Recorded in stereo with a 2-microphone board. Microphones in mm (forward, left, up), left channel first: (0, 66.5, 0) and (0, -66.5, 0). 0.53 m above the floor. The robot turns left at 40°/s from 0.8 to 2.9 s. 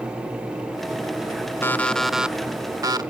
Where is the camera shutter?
I don't hear a camera shutter.